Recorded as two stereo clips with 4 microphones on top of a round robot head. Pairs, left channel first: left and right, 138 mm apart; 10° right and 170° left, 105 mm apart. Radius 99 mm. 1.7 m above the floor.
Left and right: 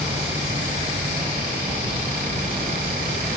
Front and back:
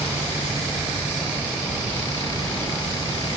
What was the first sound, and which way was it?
Only background noise.